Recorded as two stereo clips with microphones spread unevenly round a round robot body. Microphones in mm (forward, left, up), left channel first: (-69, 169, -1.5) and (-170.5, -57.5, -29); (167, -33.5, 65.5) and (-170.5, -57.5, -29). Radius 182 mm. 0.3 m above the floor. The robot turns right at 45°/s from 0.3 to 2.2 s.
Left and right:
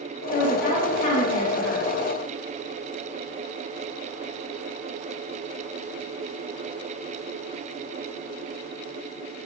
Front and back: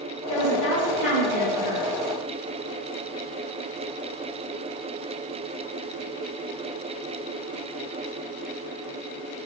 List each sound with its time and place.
0.3 s a woman speaking: 25° left, 1.1 m; by 1.9 s 95° left, 1.1 m